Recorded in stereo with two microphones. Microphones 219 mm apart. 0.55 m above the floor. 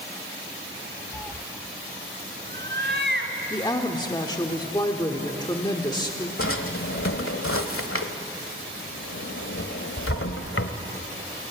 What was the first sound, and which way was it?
A cat meowing, 10° left (ahead or behind).